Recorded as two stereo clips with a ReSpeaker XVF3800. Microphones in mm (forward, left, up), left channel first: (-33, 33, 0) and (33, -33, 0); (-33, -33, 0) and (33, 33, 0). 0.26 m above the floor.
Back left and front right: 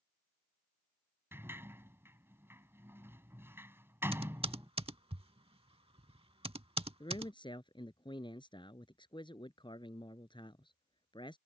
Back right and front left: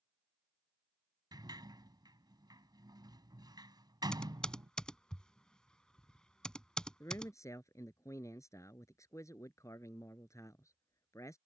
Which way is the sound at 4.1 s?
55° right.